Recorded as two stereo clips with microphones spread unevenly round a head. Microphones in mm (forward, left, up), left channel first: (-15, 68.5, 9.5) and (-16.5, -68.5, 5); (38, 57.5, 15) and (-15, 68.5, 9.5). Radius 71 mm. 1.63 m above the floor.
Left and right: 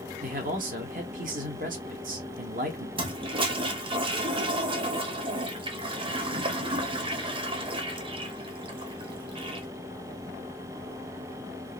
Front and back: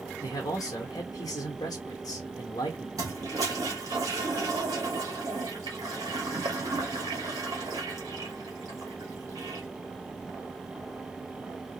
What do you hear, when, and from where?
0.2 s a man speaking: 50° right, 1.1 m
3.0 s a toilet flushing: 140° right, 0.7 m